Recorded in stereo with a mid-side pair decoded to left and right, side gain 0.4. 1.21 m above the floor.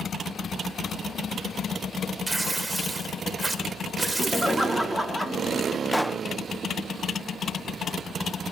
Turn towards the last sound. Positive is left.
turn(degrees=-5)